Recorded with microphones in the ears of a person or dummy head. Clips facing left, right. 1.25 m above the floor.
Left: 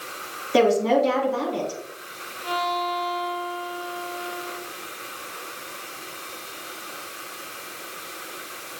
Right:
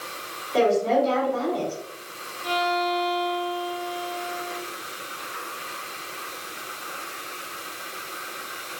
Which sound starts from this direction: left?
A woman speaking, at 0.5 s.